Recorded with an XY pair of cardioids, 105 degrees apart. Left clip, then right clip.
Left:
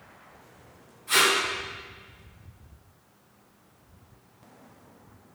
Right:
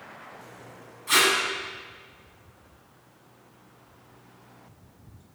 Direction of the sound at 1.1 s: 65° right.